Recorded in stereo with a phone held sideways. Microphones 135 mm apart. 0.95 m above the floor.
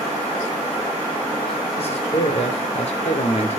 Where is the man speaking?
50° left (ahead or behind), 3.5 m; by 3.6 s 55° left (ahead or behind), 2.5 m.